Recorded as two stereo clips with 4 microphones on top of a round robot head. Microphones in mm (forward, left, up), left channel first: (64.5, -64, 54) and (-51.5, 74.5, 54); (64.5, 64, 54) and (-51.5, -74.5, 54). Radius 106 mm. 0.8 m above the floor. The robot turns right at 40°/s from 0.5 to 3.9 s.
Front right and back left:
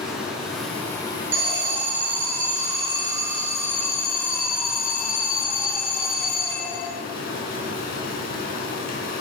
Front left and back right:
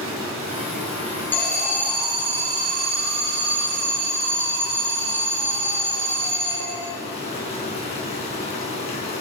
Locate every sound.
0.0 s running water: 145° right, 4.5 m; by 9.2 s 10° right, 4.5 m
1.3 s an alarm: 130° left, 4 m; by 6.9 s 130° right, 4 m